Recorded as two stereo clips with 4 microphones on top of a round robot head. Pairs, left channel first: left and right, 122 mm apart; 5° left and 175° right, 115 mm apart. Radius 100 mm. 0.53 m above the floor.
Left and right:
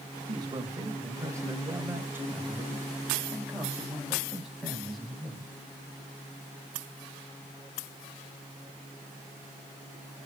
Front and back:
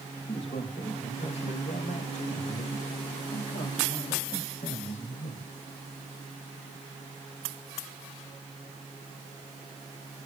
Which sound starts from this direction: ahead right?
A man speaking, at 0.3 s.